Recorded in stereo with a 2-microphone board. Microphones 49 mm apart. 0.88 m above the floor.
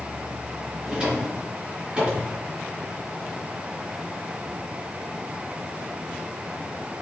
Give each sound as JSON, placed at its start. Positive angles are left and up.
{"t": 0.8, "sound": "a drawer", "side_deg": -20, "distance_m": 3.0}